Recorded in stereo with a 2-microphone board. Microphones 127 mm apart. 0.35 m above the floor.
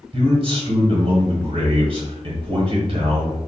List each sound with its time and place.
0.1 s a man speaking: 45° right (ahead or behind), 1.3 m